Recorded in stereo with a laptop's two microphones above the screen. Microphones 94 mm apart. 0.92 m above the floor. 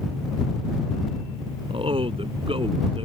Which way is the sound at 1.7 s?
75° right (ahead or behind).